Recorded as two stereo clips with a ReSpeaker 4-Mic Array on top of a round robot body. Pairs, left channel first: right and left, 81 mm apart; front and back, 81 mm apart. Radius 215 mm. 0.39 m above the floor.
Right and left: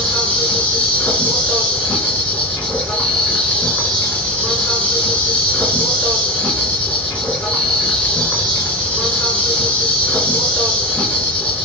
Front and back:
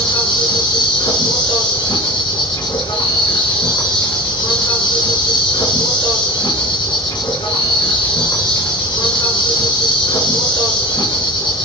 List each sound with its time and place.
0.0 s an insect: 15° right, 4.5 m